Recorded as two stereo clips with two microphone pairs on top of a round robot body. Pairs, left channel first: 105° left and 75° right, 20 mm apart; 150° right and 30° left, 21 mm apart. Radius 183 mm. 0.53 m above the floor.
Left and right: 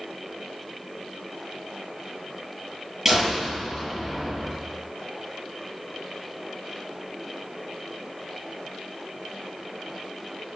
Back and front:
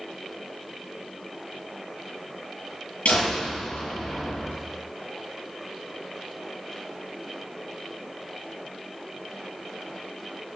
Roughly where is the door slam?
Behind right.